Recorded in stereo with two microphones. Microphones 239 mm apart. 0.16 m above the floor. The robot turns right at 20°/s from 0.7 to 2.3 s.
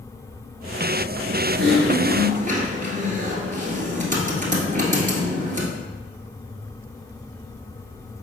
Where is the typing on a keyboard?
50° right (ahead or behind), 1.1 m; by 5.7 s 35° right (ahead or behind), 1.1 m.